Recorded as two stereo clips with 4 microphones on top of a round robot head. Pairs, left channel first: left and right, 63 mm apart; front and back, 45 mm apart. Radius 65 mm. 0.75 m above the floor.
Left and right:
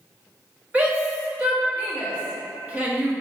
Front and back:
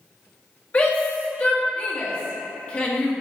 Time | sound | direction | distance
0.7 | a shout | 35° right | 1.2 m